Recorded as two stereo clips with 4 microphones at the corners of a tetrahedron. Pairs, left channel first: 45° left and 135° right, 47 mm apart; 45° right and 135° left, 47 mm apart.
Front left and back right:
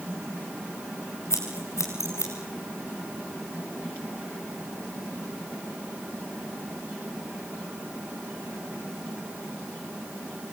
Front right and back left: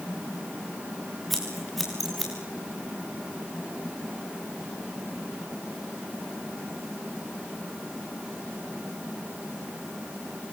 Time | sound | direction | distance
1.3 | scissors | 45° left | 5 m